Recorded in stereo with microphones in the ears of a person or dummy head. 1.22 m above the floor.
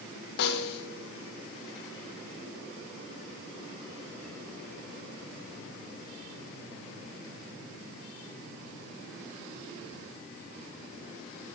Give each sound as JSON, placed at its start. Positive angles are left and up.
{"t": 0.4, "sound": "a snare drum", "side_deg": 65, "distance_m": 1.0}